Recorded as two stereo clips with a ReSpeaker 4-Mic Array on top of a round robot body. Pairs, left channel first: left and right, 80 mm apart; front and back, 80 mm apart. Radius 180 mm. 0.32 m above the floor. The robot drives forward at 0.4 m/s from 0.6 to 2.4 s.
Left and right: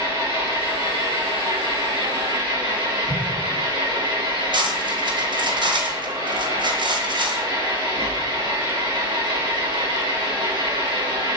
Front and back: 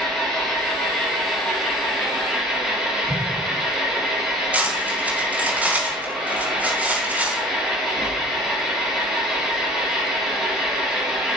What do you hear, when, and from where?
0.0 s an engine running: 85° right, 5.5 m; by 11.4 s 90° right, 5.5 m
3.1 s an explosion: 95° right, 4.5 m
4.5 s cutlery clinking: 110° right, 2.5 m